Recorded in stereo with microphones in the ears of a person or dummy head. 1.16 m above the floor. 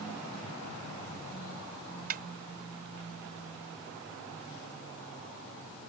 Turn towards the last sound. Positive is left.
turn(degrees=-45)  # may be behind; listen again after turning